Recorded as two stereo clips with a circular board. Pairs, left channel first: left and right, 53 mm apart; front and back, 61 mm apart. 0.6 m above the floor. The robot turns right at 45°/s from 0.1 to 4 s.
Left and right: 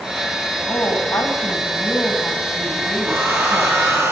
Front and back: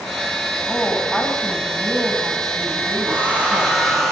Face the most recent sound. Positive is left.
turn(degrees=-85)